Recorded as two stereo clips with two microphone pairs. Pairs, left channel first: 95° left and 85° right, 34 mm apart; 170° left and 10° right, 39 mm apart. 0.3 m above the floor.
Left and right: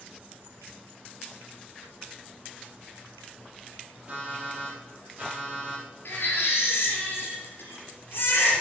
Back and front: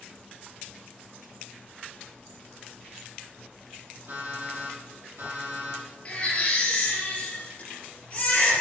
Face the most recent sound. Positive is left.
turn(degrees=110)